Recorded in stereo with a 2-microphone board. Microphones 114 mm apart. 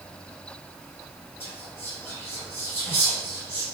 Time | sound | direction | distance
1.4 | whispering | 20° left (ahead or behind) | 1.9 m